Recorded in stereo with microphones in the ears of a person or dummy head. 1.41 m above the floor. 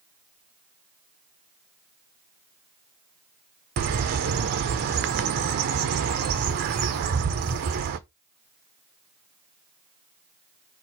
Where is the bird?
50° right (ahead or behind), 0.6 m.